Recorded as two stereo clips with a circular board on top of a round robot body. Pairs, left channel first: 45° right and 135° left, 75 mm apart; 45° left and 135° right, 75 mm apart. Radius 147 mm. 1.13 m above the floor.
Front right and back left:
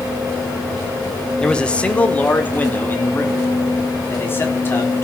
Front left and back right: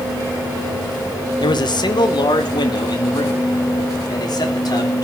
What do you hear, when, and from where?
1.4 s a man speaking: 35° left, 1.5 m; by 5.0 s 15° left, 4.5 m